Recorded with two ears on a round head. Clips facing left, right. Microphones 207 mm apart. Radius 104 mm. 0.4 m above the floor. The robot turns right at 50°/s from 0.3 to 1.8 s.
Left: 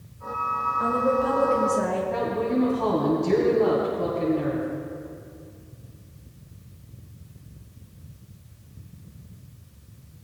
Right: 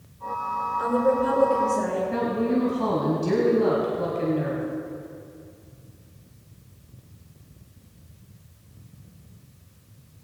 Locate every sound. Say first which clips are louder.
0.8 s a woman speaking: right 2 dB; 45° right, 4 m; by 2.0 s 5° left, 4 m
2.1 s a woman speaking: right 3 dB; 35° right (ahead or behind), 2.5 m